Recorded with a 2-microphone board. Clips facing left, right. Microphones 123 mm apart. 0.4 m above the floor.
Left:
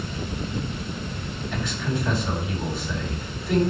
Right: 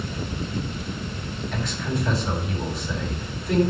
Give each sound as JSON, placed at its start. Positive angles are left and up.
{"t": 1.5, "sound": "a man speaking", "side_deg": 0, "distance_m": 3.5}